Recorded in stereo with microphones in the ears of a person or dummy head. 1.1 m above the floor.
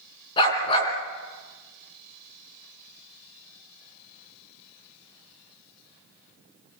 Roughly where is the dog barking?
Left.